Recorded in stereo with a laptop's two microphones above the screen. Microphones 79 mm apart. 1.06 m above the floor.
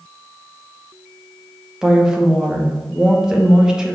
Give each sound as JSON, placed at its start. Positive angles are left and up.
{"t": 1.8, "sound": "a woman speaking", "side_deg": -10, "distance_m": 0.9}